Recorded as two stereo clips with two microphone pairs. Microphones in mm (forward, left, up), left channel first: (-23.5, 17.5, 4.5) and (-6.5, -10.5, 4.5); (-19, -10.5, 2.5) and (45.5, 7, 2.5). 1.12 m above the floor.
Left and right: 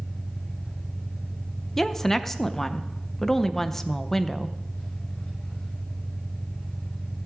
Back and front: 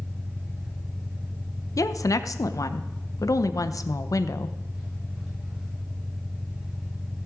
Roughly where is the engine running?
Left.